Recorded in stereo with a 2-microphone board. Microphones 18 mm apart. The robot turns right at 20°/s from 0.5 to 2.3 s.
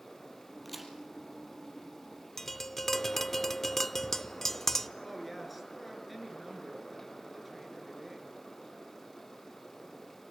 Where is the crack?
Centre (ahead or behind), 4 m; by 0.9 s 5° right (ahead or behind), 4 m.